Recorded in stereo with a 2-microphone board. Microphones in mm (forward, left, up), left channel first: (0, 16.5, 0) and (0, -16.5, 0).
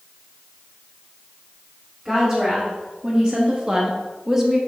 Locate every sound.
2.0 s a woman speaking: 10° right (ahead or behind), 2.5 m; by 4.6 s 5° right (ahead or behind), 1.3 m